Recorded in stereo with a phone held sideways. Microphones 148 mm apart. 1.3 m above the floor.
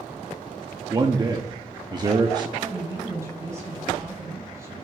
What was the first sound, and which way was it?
A man speaking, 30° right (ahead or behind).